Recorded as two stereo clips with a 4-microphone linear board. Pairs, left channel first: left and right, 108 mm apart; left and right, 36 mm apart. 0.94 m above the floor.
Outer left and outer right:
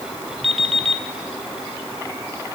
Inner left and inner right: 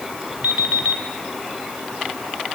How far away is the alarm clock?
About 2.5 m.